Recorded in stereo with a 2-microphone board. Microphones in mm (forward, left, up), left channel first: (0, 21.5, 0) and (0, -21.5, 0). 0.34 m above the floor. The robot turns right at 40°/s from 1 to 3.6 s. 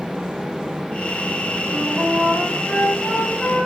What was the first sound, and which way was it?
A flute, 70° right.